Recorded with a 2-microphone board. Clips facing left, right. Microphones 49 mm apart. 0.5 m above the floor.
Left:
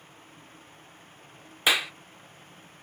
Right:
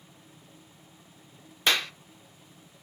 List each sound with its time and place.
1.7 s a clap: 5° left (ahead or behind), 0.6 m